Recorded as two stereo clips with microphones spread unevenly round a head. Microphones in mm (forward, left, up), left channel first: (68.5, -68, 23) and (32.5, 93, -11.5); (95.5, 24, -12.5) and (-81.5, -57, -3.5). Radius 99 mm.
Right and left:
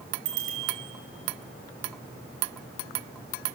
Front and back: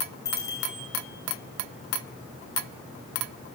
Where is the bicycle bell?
100° left, 6 m.